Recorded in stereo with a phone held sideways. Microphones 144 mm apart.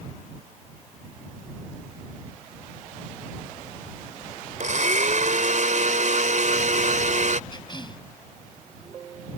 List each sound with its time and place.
4.6 s a blender: 60° right (ahead or behind)
7.5 s a cough: 30° left (ahead or behind)